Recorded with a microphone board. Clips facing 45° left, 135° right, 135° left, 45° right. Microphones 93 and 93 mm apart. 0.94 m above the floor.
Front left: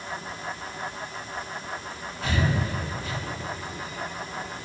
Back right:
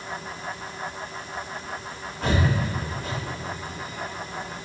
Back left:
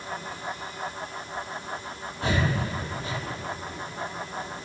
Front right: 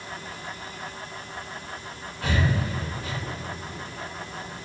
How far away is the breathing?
About 2 m.